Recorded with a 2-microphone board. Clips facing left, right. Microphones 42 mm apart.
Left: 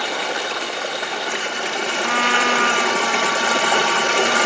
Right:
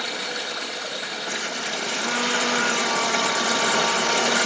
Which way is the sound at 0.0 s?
75° left (ahead or behind).